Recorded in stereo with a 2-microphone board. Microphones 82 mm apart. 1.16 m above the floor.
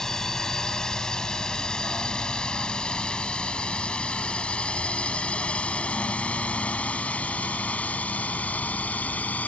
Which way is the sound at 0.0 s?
5° left (ahead or behind).